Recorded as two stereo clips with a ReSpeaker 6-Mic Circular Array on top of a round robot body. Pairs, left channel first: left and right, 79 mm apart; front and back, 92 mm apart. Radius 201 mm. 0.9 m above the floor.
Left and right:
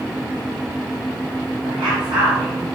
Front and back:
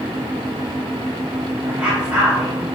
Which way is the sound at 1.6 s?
115° right.